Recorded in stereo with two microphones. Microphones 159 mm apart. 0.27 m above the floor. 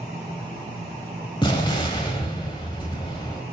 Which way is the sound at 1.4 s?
30° left (ahead or behind).